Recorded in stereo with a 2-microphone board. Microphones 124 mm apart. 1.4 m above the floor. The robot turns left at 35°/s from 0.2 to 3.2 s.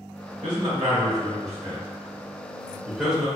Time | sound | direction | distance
0.4 | a man speaking | 85° right | 1.9 m